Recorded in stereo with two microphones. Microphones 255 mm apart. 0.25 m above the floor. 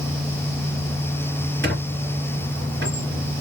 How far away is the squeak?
About 2.5 m.